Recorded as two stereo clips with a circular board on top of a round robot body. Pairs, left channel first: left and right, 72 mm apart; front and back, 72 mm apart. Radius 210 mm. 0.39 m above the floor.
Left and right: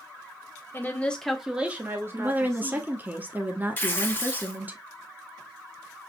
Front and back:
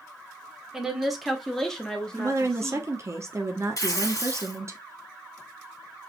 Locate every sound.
0.7 s a woman speaking: 105° left, 1.3 m; by 2.9 s 75° right, 1.9 m
2.2 s a woman speaking: 145° right, 1.4 m
3.8 s tearing paper: 30° left, 2 m